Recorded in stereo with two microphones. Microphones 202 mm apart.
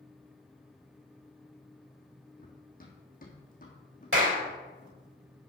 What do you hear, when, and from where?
2.4 s running footsteps: 45° left (ahead or behind), 2.5 m; by 5.0 s 40° left (ahead or behind), 4 m
4.1 s a clap: 85° right, 3 m